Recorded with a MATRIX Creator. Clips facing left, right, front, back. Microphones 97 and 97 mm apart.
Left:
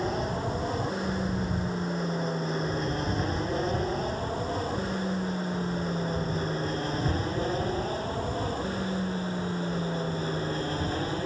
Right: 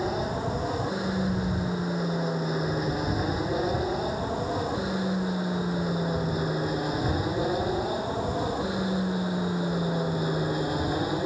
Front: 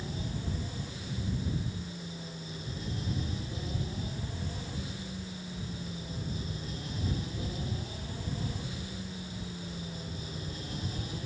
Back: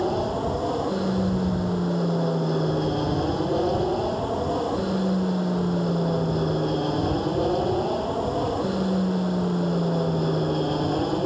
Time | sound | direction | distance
0.0 | an aircraft | 175° right | ?